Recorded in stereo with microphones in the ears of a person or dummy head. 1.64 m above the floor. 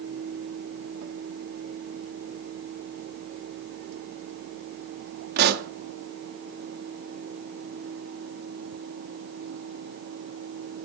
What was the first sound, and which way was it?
A pop, 55° right (ahead or behind).